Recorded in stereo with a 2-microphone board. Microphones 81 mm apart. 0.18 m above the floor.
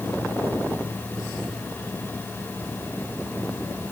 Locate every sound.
Only background noise.